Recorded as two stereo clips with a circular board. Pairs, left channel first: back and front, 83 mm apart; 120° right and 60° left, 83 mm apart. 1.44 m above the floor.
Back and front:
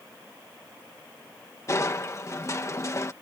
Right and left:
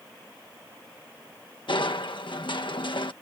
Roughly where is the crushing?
Behind right.